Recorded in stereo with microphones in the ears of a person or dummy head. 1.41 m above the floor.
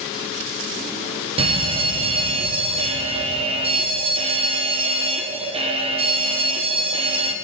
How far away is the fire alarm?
About 1.7 m.